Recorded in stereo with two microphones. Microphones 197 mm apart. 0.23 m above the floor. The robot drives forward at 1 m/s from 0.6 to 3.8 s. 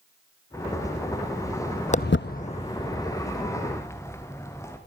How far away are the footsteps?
About 0.6 m.